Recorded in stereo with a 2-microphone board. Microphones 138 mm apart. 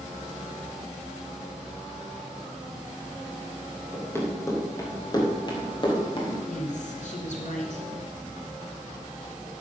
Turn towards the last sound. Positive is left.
turn(degrees=65)  # may be behind; listen again after turning